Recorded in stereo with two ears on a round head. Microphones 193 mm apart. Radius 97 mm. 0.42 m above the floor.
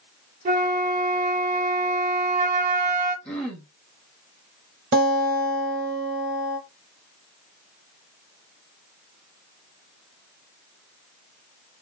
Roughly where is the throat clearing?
Centre.